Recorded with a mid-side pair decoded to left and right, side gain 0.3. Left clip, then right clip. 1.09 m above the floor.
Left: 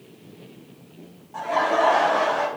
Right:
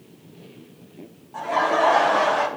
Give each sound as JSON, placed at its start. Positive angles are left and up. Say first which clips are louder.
{"t": 1.3, "sound": "laughter", "louder": "right 1 dB", "azimuth_deg": 5, "distance_m": 2.0}